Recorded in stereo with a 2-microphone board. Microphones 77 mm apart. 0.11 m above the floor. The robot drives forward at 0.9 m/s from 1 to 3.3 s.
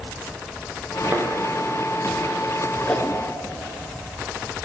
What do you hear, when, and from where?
1.1 s a thud: 30° right (ahead or behind), 3 m
2.9 s a whoosh: 15° left (ahead or behind), 0.7 m